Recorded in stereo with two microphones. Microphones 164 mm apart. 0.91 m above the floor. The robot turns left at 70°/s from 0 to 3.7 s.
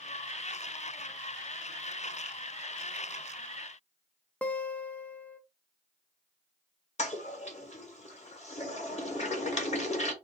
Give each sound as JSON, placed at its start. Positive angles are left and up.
{"t": 4.4, "sound": "a guitar", "side_deg": 10, "distance_m": 0.6}
{"t": 7.0, "sound": "a toilet flushing", "side_deg": 40, "distance_m": 1.2}